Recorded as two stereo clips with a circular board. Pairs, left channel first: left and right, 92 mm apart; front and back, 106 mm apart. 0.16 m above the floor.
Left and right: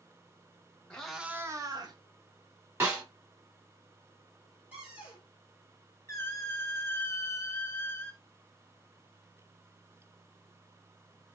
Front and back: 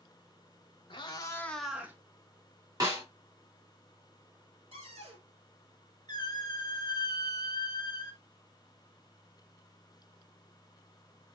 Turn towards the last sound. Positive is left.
turn(degrees=35)